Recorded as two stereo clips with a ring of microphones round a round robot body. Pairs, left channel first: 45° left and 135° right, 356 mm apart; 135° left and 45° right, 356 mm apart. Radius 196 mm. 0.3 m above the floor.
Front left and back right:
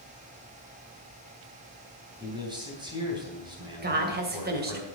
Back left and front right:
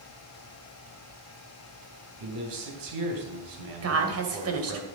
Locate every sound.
2.2 s a man speaking: 60° right, 3 m
3.8 s a woman speaking: 80° right, 2.5 m